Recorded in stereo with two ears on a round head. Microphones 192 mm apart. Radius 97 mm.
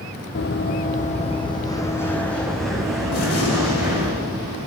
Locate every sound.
0.3 s running footsteps: 55° left (ahead or behind), 1.1 m; by 4.1 s 10° right (ahead or behind), 2.5 m
3.1 s a gunshot: 70° left (ahead or behind), 2.5 m